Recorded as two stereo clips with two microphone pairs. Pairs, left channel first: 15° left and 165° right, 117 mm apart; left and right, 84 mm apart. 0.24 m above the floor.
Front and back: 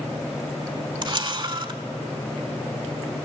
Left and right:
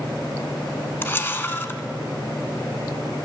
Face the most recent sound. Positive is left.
turn(degrees=150)